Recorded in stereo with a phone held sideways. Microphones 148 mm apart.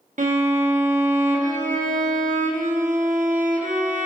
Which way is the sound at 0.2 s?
60° right (ahead or behind).